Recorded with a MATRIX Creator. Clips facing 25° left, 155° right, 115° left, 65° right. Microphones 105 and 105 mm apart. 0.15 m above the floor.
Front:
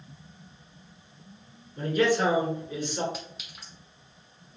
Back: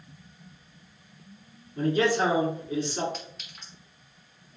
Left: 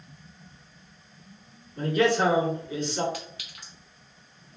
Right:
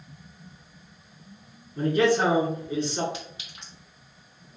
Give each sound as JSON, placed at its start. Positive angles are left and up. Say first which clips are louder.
{"t": 1.8, "sound": "a man speaking", "louder": "even, right 1 dB", "azimuth_deg": -115, "distance_m": 1.5}
{"t": 3.1, "sound": "a clink", "louder": "front 1 dB, even", "azimuth_deg": -55, "distance_m": 1.1}